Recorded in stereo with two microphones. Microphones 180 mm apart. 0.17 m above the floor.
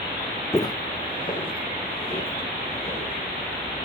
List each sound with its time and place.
0.5 s footsteps: 15° left (ahead or behind), 0.5 m; by 3.1 s 30° left (ahead or behind), 4 m